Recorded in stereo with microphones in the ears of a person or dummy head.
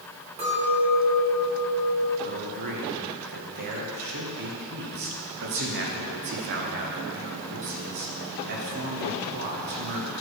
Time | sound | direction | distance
0.4 | a clink | 35° right (ahead or behind) | 1.8 m
2.2 | a man speaking | 50° right (ahead or behind) | 1.1 m